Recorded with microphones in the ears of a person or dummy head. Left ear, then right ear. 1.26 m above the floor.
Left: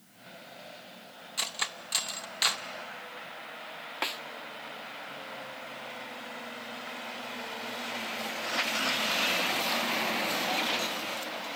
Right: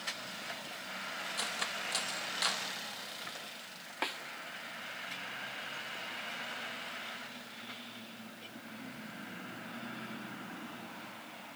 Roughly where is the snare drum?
Centre.